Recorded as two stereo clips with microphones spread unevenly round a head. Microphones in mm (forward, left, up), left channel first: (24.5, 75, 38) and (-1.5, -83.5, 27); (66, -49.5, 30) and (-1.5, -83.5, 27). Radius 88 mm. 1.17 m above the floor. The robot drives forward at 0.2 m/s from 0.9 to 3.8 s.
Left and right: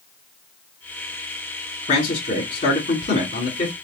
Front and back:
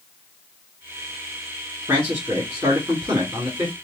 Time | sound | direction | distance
1.9 | a man speaking | 130° left | 2.5 m